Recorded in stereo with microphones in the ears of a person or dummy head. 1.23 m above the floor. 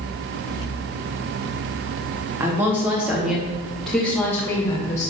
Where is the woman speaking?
15° right (ahead or behind), 3 m; by 5.1 s 15° left (ahead or behind), 3 m.